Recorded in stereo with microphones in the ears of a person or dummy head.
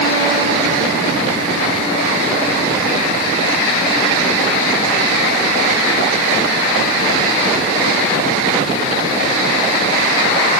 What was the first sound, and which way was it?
Only background noise.